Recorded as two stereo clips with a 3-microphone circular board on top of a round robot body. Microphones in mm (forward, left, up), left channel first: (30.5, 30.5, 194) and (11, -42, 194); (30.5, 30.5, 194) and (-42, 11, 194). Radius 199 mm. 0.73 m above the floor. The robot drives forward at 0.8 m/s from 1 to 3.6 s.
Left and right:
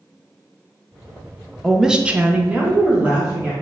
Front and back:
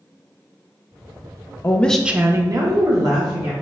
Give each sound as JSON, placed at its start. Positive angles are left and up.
{"t": 1.6, "sound": "a woman speaking", "azimuth_deg": -15, "distance_m": 0.6}